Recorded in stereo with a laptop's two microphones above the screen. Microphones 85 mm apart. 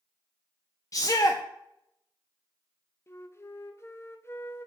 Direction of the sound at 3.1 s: 35° left (ahead or behind).